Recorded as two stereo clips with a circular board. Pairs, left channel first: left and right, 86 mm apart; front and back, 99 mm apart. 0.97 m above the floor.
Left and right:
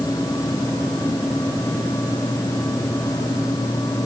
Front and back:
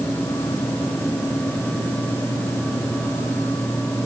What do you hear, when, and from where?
Only background noise.